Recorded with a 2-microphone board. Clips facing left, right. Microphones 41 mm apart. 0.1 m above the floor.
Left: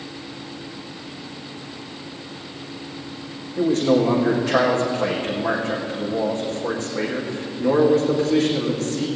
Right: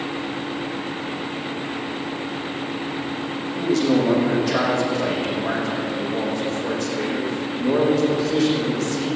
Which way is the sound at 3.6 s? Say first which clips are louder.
Left 2 dB; 35° left (ahead or behind).